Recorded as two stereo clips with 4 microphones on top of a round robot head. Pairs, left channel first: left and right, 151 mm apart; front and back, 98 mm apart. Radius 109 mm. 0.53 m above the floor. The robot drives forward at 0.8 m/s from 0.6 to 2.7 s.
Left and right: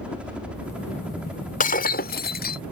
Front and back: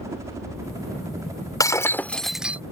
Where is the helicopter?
165° right.